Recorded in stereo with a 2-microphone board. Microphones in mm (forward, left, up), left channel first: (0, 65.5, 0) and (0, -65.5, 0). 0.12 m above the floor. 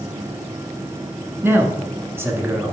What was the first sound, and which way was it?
A man speaking, 15° right (ahead or behind).